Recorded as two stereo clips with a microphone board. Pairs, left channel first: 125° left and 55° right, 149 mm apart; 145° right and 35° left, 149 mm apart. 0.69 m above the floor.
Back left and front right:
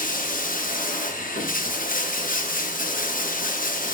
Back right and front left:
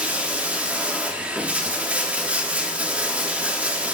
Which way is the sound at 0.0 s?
115° left.